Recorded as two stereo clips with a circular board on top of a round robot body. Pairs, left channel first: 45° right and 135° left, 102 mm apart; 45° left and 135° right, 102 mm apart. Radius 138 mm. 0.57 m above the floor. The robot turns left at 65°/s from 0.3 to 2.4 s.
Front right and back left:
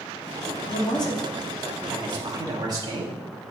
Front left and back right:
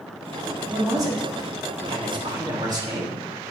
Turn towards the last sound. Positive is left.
turn(degrees=180)